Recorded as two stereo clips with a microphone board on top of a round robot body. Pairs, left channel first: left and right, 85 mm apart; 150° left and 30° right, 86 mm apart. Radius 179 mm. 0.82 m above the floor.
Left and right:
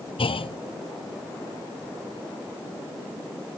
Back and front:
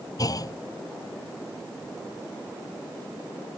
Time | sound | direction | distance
0.2 | a clunk | 100° left | ?